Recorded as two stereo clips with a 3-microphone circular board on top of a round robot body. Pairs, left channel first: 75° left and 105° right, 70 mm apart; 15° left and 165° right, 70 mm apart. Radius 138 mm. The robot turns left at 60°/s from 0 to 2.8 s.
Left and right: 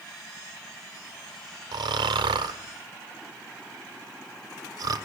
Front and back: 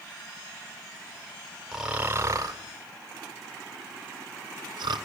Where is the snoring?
75° right, 0.8 m; by 5.0 s 140° right, 0.8 m.